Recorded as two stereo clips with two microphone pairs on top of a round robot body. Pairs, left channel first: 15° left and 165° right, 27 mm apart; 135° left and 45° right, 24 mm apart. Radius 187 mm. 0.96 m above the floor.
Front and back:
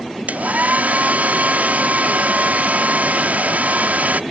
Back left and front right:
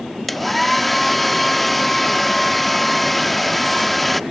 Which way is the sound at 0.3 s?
140° right.